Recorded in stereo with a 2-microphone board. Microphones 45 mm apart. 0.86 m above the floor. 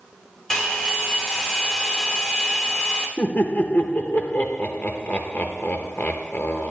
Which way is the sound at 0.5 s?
15° left (ahead or behind).